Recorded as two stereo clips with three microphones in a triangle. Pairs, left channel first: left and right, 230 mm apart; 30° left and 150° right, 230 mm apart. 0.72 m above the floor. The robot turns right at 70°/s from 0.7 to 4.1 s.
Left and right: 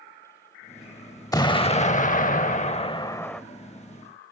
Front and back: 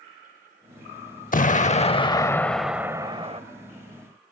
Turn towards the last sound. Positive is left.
turn(degrees=-135)